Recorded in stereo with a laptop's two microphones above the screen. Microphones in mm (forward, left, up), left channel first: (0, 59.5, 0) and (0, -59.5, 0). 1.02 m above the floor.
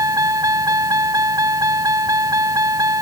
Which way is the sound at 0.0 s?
30° right (ahead or behind).